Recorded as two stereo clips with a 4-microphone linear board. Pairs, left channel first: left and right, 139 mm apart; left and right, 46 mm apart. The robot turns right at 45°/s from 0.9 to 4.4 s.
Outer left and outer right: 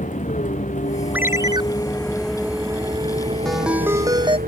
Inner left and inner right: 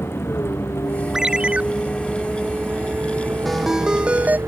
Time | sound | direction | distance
0.0 | a vehicle | 115° left | ?
1.1 | a ringtone | 10° right (ahead or behind) | ?
3.5 | a ringtone | 175° left | ?